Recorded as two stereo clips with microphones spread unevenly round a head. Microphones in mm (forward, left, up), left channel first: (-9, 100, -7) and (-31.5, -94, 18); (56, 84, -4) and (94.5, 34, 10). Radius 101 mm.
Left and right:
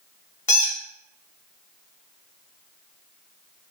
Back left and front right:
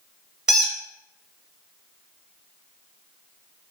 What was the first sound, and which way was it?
A squeak, 5° left.